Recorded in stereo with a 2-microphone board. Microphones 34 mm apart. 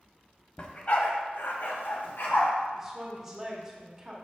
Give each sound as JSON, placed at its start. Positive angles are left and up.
{"t": 0.6, "sound": "a dog barking", "side_deg": 35, "distance_m": 0.9}
{"t": 2.7, "sound": "a woman speaking", "side_deg": -10, "distance_m": 1.3}